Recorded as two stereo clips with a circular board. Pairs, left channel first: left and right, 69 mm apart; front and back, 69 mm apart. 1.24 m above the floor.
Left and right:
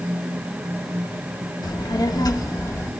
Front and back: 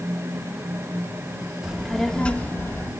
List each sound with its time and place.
1.6 s a child speaking: 100° left, 1.5 m; by 2.9 s 45° left, 1.8 m